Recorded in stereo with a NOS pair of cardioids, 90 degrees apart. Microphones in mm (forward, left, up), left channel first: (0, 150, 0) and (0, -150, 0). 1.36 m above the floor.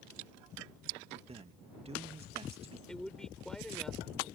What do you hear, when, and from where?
1.3 s a man speaking: 20° right
2.9 s a man speaking: straight ahead